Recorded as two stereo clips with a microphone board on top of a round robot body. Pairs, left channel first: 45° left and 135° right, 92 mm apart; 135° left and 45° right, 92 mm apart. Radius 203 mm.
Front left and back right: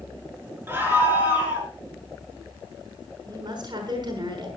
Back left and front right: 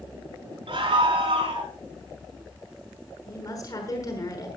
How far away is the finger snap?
No finger snap in this recording.